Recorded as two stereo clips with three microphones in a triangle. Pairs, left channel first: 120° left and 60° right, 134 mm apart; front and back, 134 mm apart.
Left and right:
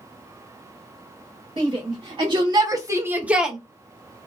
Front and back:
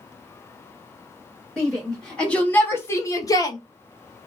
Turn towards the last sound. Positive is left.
turn(degrees=30)